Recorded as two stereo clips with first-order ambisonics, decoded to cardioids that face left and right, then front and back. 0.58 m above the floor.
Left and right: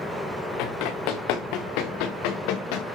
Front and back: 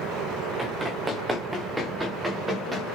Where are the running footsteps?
100° left, 3.5 m.